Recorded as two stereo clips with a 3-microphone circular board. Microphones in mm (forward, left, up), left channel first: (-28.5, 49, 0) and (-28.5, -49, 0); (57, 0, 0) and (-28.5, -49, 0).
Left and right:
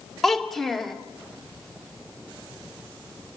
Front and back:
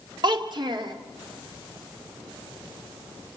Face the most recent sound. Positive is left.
turn(degrees=180)